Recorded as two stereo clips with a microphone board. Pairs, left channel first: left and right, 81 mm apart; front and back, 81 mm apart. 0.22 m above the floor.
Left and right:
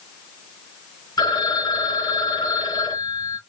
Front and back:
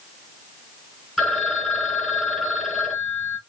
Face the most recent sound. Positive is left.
turn(degrees=95)